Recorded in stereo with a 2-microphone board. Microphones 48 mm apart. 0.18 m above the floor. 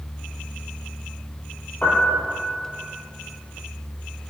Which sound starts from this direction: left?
A piano, at 1.8 s.